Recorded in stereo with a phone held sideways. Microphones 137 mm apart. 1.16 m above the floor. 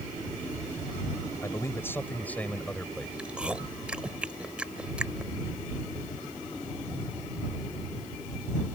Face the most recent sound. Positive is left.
turn(degrees=-5)  # may be behind; listen again after turning